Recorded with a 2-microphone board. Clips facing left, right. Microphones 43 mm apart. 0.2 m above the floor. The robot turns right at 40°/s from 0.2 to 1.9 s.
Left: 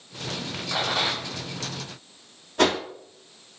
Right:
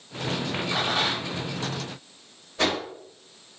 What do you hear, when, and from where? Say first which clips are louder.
0.7 s a rattle: left 1 dB; 15° left (ahead or behind), 1.9 m; by 1.3 s 10° right (ahead or behind), 1.9 m
2.6 s a whoosh: left 4 dB; 75° left (ahead or behind), 1.4 m